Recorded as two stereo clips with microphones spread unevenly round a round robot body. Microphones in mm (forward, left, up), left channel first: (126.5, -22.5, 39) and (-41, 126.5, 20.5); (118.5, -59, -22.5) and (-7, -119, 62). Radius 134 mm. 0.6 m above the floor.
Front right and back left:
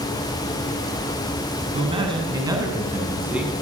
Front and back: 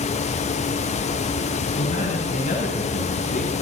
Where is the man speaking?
75° left, 6.5 m; by 3.5 s 50° left, 7 m.